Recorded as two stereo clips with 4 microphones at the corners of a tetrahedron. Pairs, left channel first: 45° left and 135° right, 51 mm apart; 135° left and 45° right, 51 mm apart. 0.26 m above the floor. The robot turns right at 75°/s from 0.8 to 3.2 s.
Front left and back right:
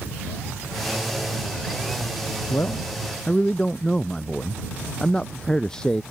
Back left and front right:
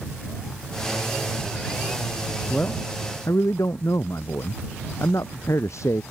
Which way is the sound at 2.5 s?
70° left.